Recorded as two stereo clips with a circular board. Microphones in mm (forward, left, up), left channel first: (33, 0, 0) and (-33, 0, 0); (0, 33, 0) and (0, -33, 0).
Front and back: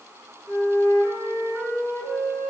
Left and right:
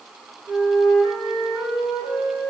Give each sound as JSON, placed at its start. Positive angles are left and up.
{"t": 0.5, "sound": "a flute", "azimuth_deg": -100, "distance_m": 1.9}